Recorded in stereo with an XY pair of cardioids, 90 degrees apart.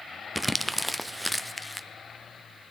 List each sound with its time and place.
0.3 s crumpling: straight ahead, 0.6 m